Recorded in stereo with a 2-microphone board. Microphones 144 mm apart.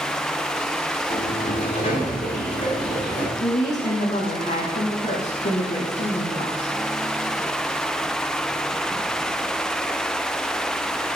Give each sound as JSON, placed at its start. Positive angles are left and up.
{"t": 1.1, "sound": "a sliding door", "side_deg": 45, "distance_m": 6.0}
{"t": 3.4, "sound": "a woman speaking", "side_deg": 55, "distance_m": 7.5}